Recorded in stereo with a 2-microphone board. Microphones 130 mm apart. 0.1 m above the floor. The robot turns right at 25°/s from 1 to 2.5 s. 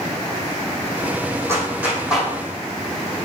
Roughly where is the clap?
Right.